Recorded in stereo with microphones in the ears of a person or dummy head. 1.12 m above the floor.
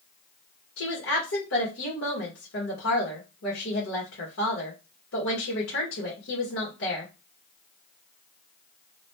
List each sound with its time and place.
0.8 s a woman speaking: 65° left (ahead or behind), 1.6 m